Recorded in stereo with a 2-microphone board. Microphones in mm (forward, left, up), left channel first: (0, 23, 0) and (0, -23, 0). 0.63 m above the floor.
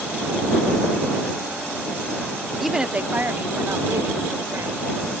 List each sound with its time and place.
2.6 s a woman speaking: 5° right (ahead or behind); by 5.2 s 70° right (ahead or behind)